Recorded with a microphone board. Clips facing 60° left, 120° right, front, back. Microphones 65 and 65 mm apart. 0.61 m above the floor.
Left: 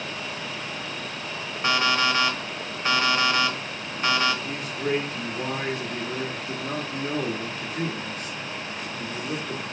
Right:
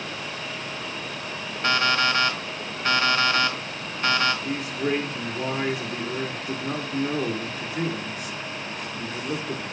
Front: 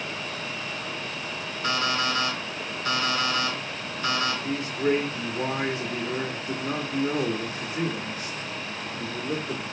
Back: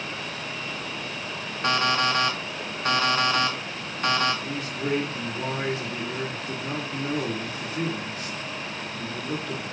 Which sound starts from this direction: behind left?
An alarm clock, at 1.6 s.